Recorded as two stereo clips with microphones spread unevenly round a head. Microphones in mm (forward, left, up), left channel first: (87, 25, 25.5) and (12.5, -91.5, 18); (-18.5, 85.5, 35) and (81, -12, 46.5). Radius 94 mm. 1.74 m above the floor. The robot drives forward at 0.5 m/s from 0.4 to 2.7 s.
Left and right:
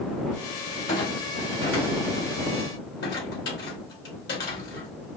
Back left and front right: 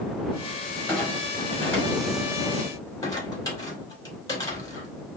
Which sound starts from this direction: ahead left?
A clunk, at 0.9 s.